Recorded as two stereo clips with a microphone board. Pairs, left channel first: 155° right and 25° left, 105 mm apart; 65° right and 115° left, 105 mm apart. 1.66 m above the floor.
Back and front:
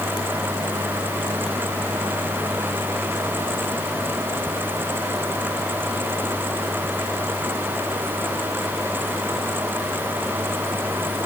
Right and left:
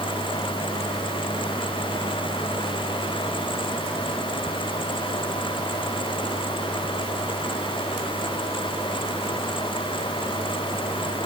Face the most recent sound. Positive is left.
No sound to turn to.